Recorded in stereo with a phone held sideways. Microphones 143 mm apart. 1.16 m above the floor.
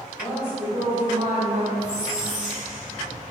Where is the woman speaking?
40° left (ahead or behind), 0.8 m; by 1.7 s 45° right (ahead or behind), 1.8 m.